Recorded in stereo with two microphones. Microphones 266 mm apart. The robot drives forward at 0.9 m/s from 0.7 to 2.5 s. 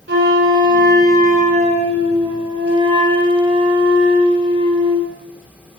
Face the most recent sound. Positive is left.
turn(degrees=-20)  # may be behind; listen again after turning